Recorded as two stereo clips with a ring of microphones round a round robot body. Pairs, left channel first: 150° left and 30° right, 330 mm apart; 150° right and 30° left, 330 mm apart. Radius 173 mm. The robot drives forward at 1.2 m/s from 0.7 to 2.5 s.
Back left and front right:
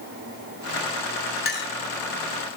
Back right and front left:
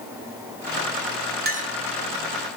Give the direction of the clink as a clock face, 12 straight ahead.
9 o'clock.